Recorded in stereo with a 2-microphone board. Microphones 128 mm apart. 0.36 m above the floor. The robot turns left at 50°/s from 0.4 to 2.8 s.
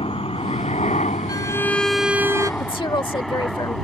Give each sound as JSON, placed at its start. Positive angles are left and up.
{"t": 0.0, "sound": "a helicopter", "side_deg": 50}
{"t": 1.3, "sound": "a violin", "azimuth_deg": 30}
{"t": 2.6, "sound": "a woman speaking", "side_deg": 40}